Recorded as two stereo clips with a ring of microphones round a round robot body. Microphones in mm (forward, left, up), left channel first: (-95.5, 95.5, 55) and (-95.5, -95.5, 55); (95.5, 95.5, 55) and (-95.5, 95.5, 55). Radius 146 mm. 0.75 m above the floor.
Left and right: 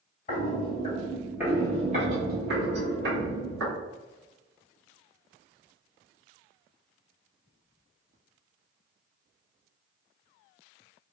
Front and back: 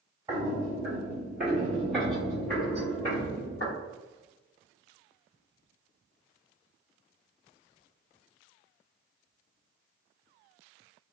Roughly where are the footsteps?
Behind left.